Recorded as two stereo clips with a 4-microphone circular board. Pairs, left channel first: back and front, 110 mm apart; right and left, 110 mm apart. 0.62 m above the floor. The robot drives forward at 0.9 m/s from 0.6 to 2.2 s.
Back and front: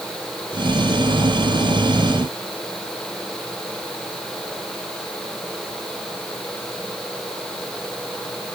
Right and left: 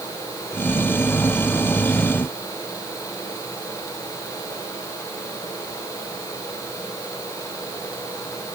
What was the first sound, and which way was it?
Only background noise.